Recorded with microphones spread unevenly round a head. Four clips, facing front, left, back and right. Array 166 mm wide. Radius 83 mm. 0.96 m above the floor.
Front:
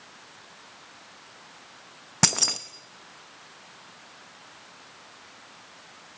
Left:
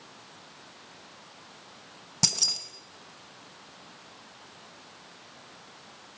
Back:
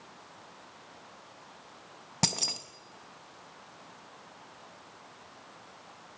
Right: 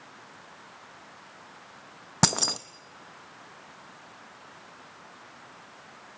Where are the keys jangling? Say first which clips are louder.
Right 11 dB, front 6 dB; 65° right, 0.7 m.